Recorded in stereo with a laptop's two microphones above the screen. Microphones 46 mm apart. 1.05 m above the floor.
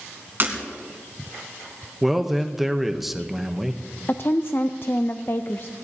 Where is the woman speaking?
50° left (ahead or behind), 0.5 m.